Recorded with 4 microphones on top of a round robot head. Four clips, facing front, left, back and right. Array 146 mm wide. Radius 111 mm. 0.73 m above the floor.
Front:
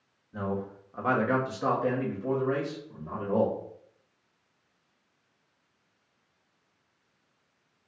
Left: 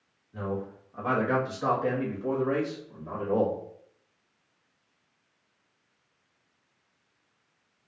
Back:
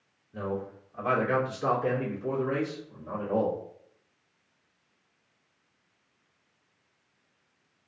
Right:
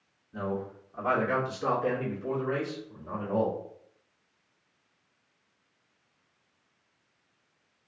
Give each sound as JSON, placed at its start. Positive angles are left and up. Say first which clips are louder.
{"t": 0.3, "sound": "a man speaking", "louder": "even, front 1 dB", "azimuth_deg": -30, "distance_m": 1.3}